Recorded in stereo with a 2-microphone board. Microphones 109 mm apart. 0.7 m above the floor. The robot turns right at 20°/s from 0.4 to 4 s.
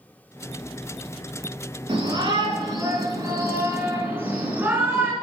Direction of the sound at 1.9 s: 65° right.